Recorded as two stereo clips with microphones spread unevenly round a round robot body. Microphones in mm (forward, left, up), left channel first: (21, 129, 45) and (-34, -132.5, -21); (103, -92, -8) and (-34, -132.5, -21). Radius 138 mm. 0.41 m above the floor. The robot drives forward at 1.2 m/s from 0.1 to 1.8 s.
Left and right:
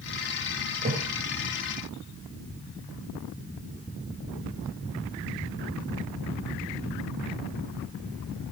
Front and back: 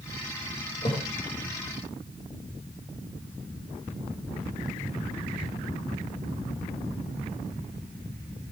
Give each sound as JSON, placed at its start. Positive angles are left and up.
{"t": 0.8, "sound": "a thud", "azimuth_deg": -35, "distance_m": 5.0}